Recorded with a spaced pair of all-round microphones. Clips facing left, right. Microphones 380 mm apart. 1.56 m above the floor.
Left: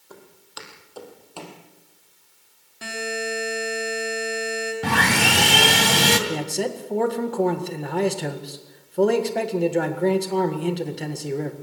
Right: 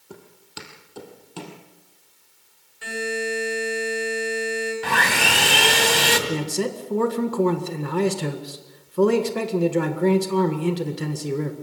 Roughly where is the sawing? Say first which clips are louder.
Left 4 dB; left.